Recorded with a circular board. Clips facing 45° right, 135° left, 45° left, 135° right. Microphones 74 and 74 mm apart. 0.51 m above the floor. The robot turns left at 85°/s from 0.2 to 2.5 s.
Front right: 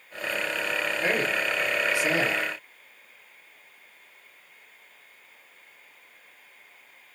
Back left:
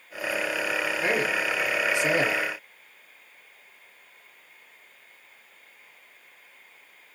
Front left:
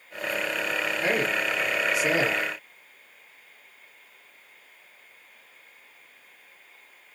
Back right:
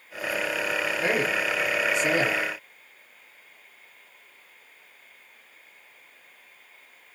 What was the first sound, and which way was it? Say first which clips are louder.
A man speaking: even, even; 155° right.